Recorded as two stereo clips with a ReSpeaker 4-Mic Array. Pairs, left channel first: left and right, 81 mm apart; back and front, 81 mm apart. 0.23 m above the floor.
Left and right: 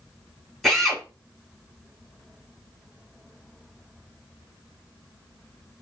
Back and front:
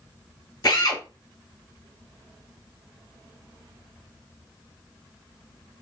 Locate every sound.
0.6 s a drill: straight behind, 1.2 m